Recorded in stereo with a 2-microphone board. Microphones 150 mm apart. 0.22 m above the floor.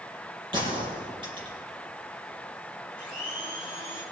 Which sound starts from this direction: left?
A blender, at 3.0 s.